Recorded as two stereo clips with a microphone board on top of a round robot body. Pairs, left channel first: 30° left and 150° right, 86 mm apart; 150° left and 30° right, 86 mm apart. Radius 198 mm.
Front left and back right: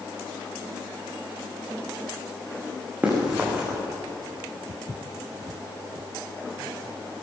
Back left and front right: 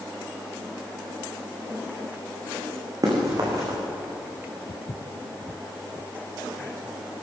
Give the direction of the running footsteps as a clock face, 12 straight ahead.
2 o'clock.